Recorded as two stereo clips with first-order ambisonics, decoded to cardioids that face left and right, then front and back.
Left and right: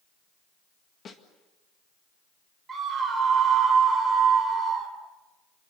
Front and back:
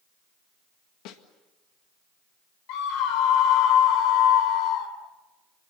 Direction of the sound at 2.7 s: 15° right.